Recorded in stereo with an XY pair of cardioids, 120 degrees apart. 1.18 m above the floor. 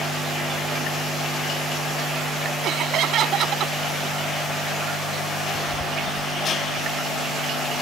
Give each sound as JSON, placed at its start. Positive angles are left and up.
{"t": 2.6, "sound": "laughter", "azimuth_deg": -60}